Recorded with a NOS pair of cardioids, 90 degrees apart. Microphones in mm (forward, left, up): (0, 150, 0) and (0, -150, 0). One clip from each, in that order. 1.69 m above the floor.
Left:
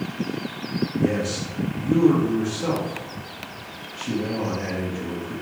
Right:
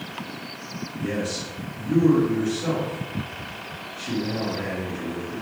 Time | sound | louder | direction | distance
1.0 | a man speaking | left 2 dB | 35° left | 1.0 m